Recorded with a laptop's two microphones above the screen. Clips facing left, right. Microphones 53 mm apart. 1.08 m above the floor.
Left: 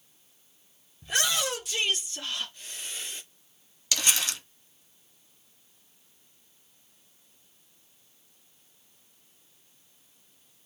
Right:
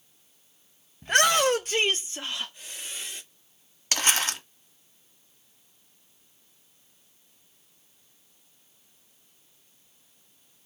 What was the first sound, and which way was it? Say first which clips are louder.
A shout: right 8 dB; 55° right (ahead or behind).